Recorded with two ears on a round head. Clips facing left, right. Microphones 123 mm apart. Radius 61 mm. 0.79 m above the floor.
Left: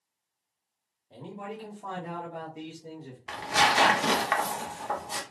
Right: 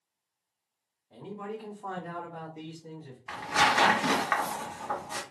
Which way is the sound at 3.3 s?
35° left (ahead or behind).